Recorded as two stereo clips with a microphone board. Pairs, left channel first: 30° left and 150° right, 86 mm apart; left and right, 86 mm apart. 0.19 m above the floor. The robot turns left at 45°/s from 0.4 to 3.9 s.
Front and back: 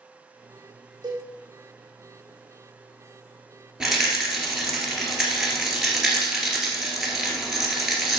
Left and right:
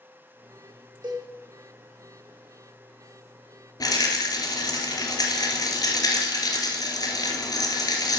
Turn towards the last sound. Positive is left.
turn(degrees=125)